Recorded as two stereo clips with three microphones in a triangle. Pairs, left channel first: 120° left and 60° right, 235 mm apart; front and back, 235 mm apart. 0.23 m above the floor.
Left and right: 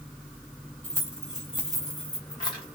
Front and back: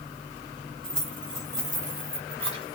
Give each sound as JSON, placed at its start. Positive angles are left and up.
{"t": 0.8, "sound": "keys jangling", "azimuth_deg": -85, "distance_m": 1.1}